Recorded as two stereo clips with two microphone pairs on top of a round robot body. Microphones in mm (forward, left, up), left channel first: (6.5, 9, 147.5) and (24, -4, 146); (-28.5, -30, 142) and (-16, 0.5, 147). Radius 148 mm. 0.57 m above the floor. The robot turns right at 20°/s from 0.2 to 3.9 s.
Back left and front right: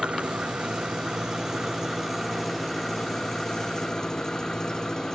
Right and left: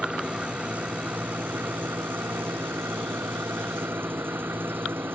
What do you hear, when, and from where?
0.0 s an engine running: 5° left; by 5.2 s 80° left